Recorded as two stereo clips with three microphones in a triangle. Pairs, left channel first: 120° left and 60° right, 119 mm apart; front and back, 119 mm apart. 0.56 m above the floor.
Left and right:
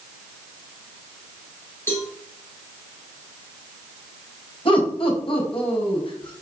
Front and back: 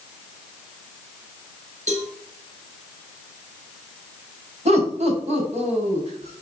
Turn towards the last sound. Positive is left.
turn(degrees=160)